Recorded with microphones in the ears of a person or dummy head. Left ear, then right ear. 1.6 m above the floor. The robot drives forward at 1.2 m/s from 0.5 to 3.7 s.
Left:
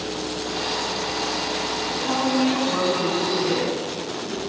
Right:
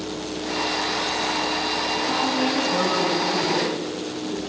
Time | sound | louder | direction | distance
1.9 | a woman speaking | even | 55° left (ahead or behind) | 9 m